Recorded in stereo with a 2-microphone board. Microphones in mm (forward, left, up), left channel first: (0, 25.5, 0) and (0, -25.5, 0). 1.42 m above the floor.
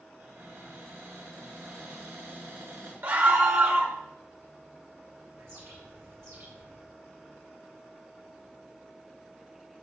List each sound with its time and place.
0.2 s a cupboard door: 75° right (ahead or behind), 6 m
3.0 s a scream: 45° right (ahead or behind), 2 m
5.4 s a bird: 65° right (ahead or behind), 4 m